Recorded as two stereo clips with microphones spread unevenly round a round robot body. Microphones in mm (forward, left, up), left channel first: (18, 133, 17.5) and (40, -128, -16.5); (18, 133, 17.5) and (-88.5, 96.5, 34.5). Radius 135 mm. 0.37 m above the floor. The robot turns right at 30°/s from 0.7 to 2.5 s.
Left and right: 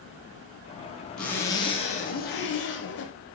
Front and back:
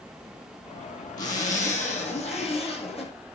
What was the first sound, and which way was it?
A zipper, 10° left.